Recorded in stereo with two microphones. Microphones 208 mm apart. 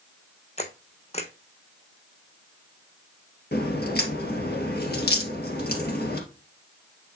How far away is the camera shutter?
About 1.1 m.